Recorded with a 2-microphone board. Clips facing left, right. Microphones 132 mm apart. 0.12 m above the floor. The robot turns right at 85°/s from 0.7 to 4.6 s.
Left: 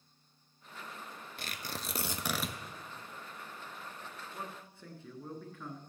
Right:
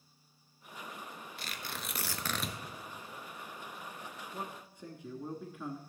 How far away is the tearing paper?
About 0.9 m.